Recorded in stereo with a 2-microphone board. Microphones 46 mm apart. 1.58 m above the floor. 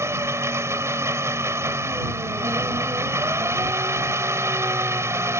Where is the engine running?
85° right.